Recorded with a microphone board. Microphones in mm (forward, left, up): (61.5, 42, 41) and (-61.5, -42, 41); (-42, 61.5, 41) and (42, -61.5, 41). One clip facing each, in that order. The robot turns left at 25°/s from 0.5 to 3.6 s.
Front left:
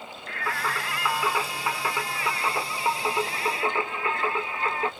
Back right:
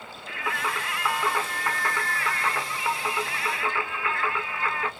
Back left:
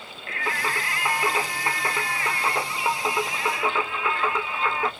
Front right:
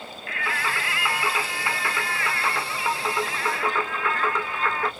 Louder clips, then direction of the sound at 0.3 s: Even, back left 1 dB; 135° left.